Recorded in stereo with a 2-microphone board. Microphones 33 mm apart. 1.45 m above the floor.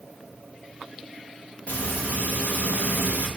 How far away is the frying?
About 2.5 m.